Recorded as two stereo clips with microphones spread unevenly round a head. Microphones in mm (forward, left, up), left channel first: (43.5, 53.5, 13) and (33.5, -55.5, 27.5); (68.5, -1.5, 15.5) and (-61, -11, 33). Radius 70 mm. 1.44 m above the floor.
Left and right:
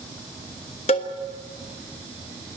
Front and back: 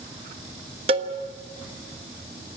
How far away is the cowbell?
About 1.3 m.